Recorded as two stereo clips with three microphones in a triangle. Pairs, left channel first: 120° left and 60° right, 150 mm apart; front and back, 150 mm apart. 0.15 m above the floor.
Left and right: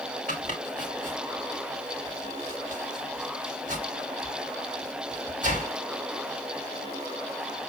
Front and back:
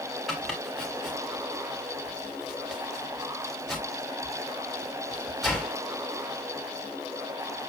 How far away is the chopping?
About 5 m.